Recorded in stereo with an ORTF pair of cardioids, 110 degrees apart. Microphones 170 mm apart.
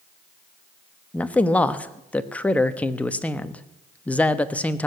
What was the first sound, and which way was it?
A man speaking, 10° left.